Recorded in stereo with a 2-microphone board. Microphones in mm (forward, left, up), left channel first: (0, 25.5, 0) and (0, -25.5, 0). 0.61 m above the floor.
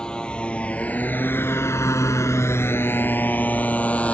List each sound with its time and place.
0.0 s a motorcycle: 15° left (ahead or behind); by 4.1 s 25° left (ahead or behind)